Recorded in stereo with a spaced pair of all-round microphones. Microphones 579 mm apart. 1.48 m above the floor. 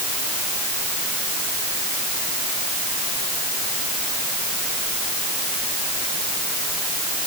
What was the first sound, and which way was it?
Only background noise.